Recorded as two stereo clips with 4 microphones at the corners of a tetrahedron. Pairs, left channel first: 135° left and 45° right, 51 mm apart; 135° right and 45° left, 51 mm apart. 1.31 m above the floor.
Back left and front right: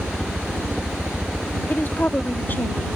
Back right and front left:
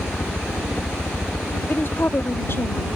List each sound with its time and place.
0.0 s a helicopter: 125° right; by 3.0 s 115° right
1.7 s a woman speaking: 175° right